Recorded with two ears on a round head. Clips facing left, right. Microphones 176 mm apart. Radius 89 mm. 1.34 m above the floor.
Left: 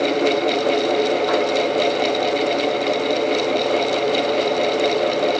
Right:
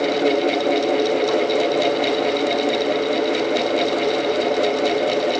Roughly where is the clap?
I don't hear a clap.